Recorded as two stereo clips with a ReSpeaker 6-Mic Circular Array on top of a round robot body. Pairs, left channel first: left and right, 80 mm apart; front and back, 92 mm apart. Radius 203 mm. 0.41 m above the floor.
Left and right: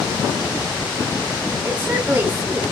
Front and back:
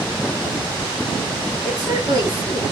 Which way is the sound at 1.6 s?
145° right.